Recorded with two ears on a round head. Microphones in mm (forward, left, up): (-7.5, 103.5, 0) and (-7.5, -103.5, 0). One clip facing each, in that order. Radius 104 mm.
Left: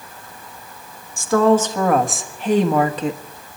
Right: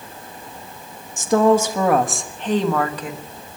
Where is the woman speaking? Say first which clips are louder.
Even; 20° right (ahead or behind), 1.5 m; by 3.2 s 25° left (ahead or behind), 1.3 m.